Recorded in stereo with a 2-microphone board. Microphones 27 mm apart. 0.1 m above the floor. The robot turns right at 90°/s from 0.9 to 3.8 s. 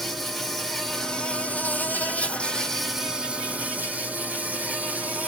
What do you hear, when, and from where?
0.0 s an insect: straight ahead, 1.0 m; by 5.3 s 100° right, 1.0 m